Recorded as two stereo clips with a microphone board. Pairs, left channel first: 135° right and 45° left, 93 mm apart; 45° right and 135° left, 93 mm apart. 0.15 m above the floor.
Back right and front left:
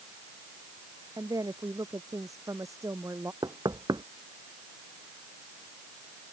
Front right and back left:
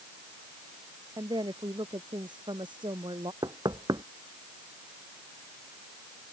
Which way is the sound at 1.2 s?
95° left.